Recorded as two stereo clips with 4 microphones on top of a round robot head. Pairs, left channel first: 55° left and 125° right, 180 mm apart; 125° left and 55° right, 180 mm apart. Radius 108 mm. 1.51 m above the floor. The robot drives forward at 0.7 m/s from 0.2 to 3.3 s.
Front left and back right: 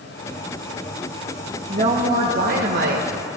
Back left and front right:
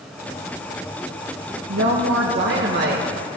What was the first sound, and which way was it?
A woman speaking, 65° right.